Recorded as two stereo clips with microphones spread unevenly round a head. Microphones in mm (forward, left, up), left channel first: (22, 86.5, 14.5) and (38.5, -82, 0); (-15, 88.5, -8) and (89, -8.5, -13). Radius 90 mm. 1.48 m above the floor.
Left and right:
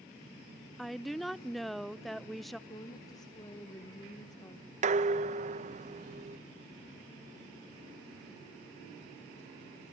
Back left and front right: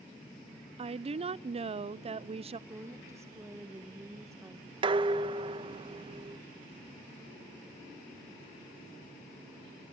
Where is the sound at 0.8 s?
5° left, 0.7 m.